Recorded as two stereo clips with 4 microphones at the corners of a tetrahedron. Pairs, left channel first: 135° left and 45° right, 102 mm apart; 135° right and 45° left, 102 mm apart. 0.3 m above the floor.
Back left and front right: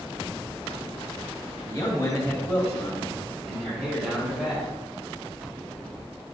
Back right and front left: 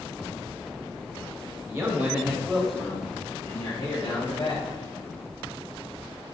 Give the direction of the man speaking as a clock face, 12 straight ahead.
9 o'clock.